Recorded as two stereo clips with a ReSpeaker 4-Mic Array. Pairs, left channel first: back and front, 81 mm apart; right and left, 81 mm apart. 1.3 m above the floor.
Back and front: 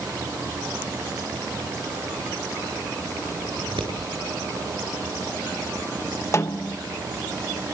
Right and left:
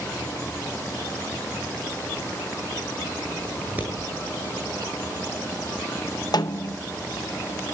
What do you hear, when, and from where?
3.6 s scissors: 20° left, 7.5 m
6.3 s a snare drum: 125° right, 1.0 m